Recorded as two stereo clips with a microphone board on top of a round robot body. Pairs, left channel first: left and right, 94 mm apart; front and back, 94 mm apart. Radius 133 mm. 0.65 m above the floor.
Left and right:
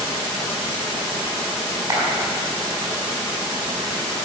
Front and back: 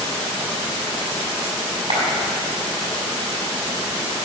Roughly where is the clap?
Behind right.